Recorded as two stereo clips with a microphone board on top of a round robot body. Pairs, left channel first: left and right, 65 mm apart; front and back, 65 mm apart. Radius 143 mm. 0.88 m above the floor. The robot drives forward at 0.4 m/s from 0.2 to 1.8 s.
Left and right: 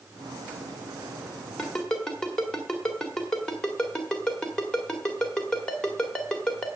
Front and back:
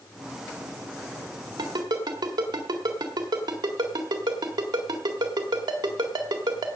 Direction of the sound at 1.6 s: 170° left.